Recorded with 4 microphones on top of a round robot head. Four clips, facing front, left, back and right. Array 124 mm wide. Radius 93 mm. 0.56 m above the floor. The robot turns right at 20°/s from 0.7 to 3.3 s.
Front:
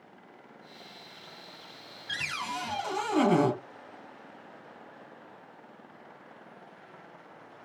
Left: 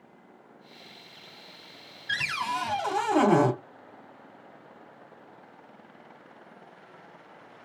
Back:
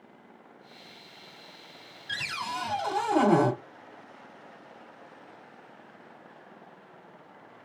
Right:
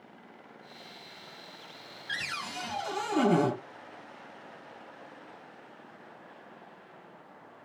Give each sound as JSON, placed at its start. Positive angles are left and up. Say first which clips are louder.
{"t": 2.1, "sound": "a cupboard door", "louder": "left 8 dB, back 1 dB", "azimuth_deg": 105, "distance_m": 1.4}